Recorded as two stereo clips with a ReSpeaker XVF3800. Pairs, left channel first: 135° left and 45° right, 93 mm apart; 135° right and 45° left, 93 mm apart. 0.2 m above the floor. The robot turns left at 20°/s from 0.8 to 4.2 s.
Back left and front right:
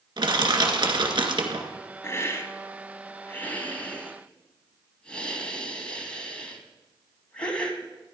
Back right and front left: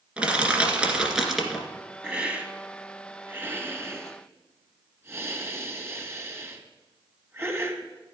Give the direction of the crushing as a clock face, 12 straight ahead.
1 o'clock.